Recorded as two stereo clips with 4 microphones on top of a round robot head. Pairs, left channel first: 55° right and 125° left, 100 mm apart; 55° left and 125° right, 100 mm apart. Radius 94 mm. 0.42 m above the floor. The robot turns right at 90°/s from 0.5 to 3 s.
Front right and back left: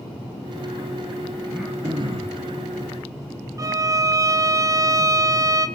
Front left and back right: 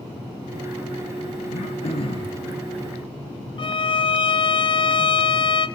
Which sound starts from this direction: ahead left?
Throat clearing, at 1.5 s.